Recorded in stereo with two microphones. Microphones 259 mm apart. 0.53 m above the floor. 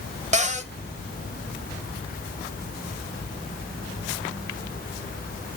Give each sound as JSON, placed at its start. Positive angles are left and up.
{"t": 0.3, "sound": "a cupboard door", "side_deg": -25, "distance_m": 0.7}